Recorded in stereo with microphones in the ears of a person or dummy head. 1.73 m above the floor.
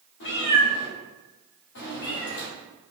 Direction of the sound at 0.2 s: 55° left (ahead or behind).